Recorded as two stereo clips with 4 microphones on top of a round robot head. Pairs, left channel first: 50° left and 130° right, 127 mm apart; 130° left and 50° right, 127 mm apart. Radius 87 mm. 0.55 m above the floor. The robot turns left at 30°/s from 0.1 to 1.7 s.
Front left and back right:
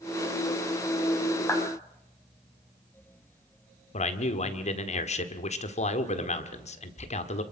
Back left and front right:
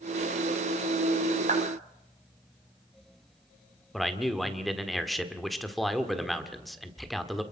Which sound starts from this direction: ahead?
A clap, at 1.5 s.